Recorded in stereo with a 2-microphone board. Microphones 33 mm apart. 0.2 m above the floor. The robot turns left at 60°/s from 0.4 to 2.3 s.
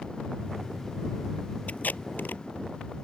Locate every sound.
1.7 s tape being pulled: 50° left (ahead or behind); by 2.4 s 85° left